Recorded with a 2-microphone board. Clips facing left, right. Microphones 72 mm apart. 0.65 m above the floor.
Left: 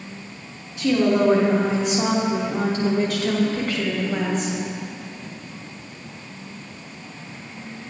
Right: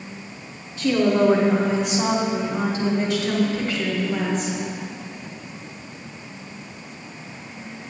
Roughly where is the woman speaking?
Centre.